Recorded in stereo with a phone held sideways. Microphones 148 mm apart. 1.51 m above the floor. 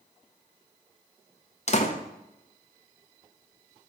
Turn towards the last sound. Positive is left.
turn(degrees=50)  # may be behind; listen again after turning